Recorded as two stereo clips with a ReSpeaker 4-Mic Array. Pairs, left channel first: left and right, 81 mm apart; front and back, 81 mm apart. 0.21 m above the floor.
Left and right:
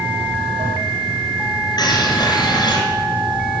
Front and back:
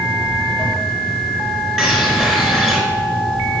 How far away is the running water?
About 6.5 m.